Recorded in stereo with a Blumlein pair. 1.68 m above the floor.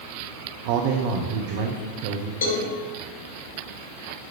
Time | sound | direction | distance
0.7 | a man speaking | 45° right | 0.9 m
2.4 | a cowbell | 55° left | 2.5 m